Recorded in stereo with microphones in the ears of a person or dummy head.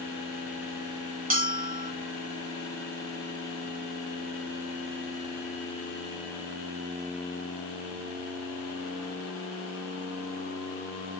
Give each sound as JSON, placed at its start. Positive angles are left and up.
{"t": 1.3, "sound": "a bell", "side_deg": -45, "distance_m": 0.8}